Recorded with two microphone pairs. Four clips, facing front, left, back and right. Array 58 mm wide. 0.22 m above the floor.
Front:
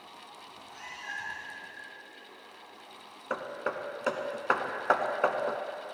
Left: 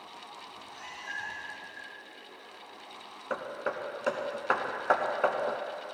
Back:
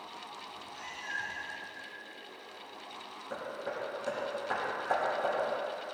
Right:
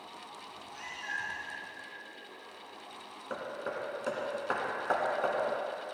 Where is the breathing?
I don't hear breathing.